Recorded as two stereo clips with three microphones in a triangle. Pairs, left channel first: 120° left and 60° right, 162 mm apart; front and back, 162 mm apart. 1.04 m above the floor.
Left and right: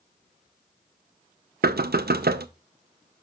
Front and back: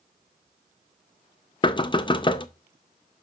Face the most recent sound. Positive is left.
turn(degrees=-60)